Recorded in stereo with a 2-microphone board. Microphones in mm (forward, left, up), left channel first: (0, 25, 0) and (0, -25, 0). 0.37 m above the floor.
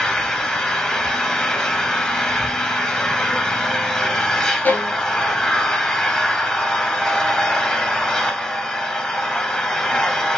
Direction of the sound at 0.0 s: 15° left (ahead or behind).